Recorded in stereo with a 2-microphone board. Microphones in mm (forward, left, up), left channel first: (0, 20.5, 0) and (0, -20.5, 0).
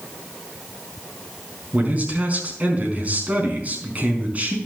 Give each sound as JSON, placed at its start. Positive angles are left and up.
{"t": 1.7, "sound": "a man speaking", "side_deg": -40, "distance_m": 4.5}